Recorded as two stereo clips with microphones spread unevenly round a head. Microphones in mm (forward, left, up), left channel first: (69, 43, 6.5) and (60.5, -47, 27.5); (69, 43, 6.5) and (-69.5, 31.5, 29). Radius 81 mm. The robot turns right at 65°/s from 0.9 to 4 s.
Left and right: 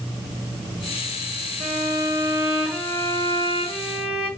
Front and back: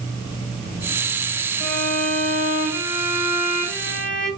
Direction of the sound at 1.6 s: 70° right.